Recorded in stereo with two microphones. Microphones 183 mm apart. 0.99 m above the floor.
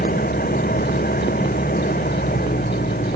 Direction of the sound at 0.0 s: 50° left (ahead or behind).